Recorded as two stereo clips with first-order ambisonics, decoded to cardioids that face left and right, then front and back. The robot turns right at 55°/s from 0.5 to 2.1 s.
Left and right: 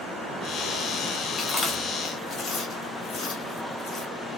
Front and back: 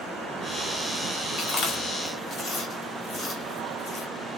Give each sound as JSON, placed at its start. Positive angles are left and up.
{"t": 1.4, "sound": "chewing", "azimuth_deg": 30, "distance_m": 1.0}